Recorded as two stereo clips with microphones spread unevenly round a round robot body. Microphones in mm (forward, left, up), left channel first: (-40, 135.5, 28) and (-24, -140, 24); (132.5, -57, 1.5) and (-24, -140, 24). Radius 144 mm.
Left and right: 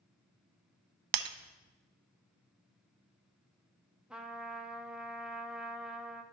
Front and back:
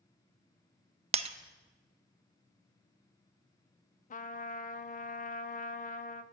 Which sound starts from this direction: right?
Breaking glass, at 1.1 s.